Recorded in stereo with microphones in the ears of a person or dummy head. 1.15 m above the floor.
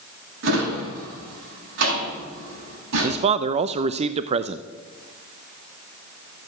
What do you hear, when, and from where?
0.4 s a drawer: 75° right (ahead or behind), 5.5 m
3.0 s a man speaking: 45° right (ahead or behind), 0.6 m